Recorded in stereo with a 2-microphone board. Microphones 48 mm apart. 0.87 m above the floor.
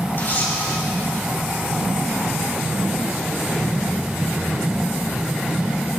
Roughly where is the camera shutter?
Left.